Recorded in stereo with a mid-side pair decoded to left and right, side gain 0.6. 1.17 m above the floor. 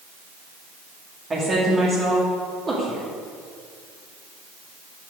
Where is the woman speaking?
25° right, 2.5 m.